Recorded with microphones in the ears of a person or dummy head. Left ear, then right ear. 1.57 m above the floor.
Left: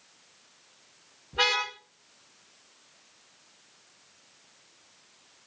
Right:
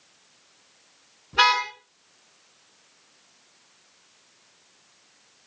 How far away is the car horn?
About 7 m.